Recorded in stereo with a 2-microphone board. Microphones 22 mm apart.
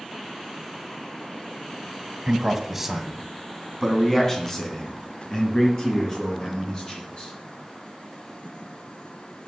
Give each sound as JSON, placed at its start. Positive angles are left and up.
{"t": 2.3, "sound": "a man speaking", "side_deg": -25, "distance_m": 1.8}